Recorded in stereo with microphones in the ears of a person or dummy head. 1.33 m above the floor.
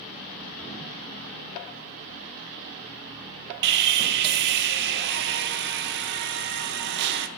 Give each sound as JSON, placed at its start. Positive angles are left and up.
{"t": 3.6, "sound": "sawing", "side_deg": -60, "distance_m": 0.5}